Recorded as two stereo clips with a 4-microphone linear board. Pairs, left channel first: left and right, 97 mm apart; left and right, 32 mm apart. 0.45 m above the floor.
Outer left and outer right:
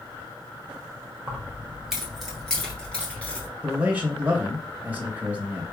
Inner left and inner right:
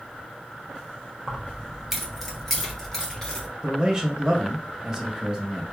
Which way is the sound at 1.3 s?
15° right (ahead or behind).